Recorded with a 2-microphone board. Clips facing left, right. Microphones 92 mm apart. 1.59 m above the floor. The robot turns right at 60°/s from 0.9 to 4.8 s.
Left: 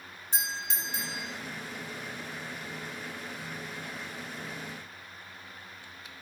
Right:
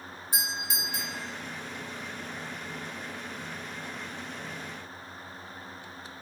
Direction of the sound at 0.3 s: 10° right (ahead or behind).